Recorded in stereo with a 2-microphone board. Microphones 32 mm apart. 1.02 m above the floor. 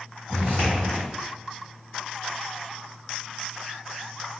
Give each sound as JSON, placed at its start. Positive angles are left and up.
{"t": 0.3, "sound": "footsteps", "side_deg": 55, "distance_m": 1.8}